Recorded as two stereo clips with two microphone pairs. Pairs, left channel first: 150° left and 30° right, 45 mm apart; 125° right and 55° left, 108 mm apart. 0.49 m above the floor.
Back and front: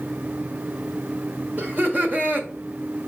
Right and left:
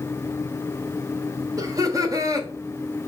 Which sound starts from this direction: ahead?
Laughter, at 1.6 s.